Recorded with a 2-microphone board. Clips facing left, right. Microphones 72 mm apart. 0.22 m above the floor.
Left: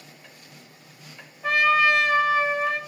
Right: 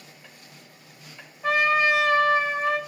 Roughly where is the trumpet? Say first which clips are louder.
Left 1 dB; centre.